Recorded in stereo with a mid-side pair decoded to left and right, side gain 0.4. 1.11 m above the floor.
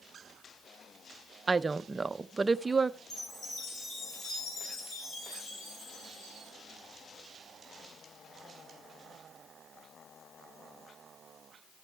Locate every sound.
1.5 s a woman speaking: 30° right, 0.6 m
3.1 s a chime: 60° left, 7.5 m